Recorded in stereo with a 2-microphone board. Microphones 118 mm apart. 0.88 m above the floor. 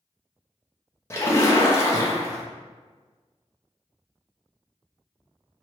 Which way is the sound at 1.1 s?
25° left (ahead or behind).